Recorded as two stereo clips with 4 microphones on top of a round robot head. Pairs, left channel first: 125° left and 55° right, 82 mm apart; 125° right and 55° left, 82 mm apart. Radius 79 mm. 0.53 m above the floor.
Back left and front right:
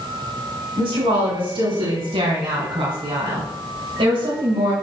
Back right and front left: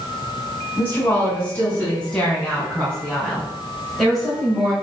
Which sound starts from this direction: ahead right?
A woman speaking, at 0.8 s.